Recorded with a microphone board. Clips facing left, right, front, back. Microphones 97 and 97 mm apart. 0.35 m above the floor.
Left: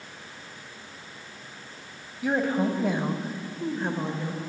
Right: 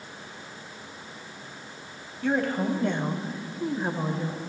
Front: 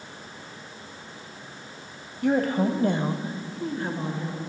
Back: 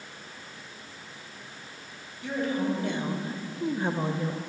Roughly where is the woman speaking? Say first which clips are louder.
Left 1 dB, front 6 dB; ahead.